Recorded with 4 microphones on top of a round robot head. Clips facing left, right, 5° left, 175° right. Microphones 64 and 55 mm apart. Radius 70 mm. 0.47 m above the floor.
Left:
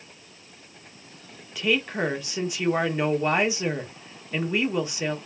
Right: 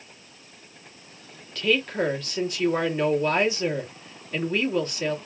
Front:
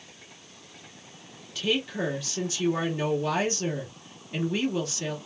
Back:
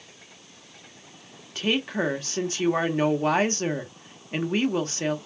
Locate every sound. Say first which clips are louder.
1.6 s a woman speaking: right 1 dB, back 2 dB; 160° left, 1.3 m